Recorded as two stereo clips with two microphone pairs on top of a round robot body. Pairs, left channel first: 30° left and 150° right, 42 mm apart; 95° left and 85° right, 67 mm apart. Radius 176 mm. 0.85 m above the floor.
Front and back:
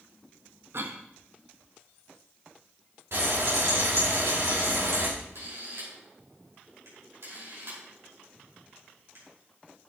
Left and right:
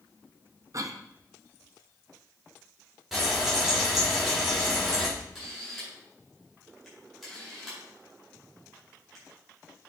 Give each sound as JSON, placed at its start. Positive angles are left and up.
{"t": 0.7, "sound": "a cough", "azimuth_deg": -120, "distance_m": 1.3}
{"t": 3.1, "sound": "frying", "azimuth_deg": -175, "distance_m": 5.0}
{"t": 5.2, "sound": "a camera shutter", "azimuth_deg": -175, "distance_m": 5.0}